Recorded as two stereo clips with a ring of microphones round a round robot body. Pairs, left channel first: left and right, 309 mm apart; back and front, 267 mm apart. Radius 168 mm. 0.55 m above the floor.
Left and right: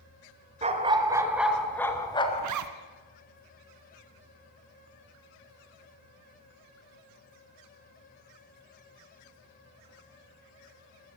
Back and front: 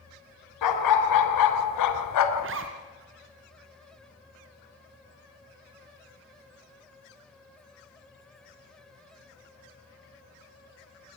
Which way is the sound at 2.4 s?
55° right.